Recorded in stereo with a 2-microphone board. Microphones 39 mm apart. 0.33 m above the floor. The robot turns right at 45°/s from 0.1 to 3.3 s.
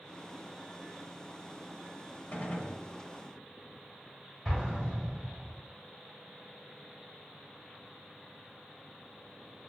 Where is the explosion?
5° right (ahead or behind), 1.7 m.